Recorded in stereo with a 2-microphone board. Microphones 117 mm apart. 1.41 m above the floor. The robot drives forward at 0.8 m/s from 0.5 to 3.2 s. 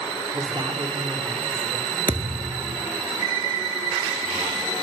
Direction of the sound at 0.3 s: 40° right (ahead or behind).